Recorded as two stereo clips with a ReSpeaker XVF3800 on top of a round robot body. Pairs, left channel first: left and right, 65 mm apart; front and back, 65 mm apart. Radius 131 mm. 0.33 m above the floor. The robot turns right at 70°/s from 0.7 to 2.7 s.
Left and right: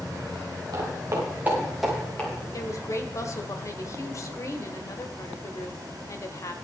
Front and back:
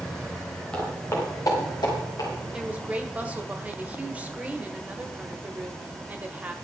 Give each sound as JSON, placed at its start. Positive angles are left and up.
{"t": 0.7, "sound": "footsteps", "azimuth_deg": -70, "distance_m": 7.0}
{"t": 2.5, "sound": "a woman speaking", "azimuth_deg": 105, "distance_m": 1.9}